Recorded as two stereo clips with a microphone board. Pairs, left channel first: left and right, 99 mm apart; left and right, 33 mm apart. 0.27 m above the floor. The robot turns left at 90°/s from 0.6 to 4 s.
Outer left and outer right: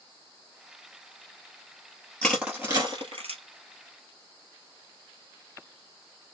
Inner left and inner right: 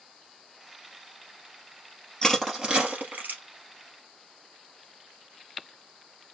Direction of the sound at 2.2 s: 10° left (ahead or behind).